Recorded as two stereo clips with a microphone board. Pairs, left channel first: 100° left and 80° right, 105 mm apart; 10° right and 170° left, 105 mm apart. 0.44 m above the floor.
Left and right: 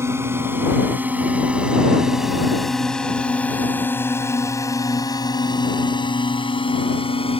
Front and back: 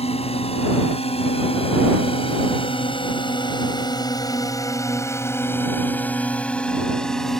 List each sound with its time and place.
0.0 s a drone: 15° right; by 7.4 s 75° left